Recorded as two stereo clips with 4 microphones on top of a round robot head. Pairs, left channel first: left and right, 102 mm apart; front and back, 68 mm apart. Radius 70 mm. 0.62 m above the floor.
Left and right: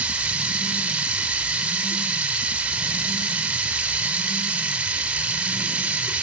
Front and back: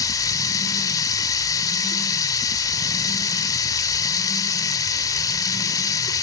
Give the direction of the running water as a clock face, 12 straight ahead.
12 o'clock.